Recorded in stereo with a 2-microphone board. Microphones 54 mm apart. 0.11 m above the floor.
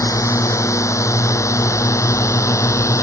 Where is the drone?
75° left (ahead or behind); by 3.0 s 70° left (ahead or behind).